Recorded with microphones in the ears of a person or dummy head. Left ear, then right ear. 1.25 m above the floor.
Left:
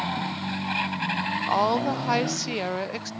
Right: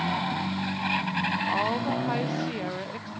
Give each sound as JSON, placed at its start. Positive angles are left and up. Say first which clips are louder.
{"t": 1.5, "sound": "a woman speaking", "louder": "left 3 dB", "side_deg": 70, "distance_m": 0.5}